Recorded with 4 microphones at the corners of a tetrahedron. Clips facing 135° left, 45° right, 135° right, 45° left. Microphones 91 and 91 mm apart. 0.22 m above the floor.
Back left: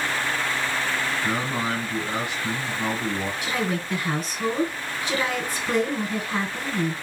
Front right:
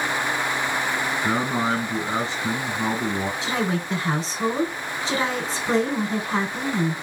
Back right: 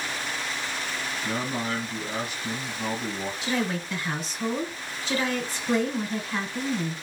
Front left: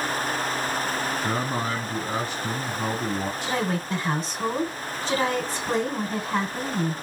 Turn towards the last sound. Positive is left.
turn(degrees=5)